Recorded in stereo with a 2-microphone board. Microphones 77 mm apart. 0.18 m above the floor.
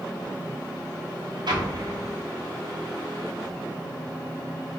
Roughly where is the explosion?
Right.